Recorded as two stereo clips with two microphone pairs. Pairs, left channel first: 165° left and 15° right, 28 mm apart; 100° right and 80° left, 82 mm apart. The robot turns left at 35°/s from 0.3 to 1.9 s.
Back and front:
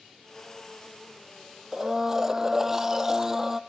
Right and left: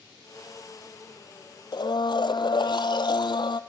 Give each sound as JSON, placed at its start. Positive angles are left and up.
{"t": 1.7, "sound": "a blender", "azimuth_deg": -80, "distance_m": 0.8}